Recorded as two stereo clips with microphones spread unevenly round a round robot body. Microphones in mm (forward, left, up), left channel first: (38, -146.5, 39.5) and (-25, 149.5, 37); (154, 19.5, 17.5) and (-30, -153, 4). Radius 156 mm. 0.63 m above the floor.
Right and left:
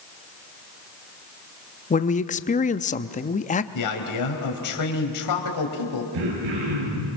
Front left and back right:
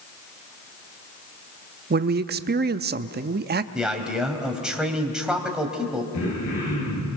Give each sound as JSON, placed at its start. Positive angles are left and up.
{"t": 1.9, "sound": "a man speaking", "azimuth_deg": -130, "distance_m": 0.7}
{"t": 3.8, "sound": "a man speaking", "azimuth_deg": -50, "distance_m": 4.0}
{"t": 6.1, "sound": "throat clearing", "azimuth_deg": 95, "distance_m": 9.5}